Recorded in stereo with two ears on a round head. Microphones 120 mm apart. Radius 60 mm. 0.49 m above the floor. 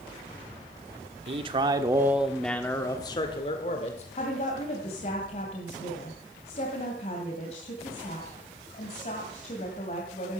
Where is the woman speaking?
45° left (ahead or behind), 2.5 m.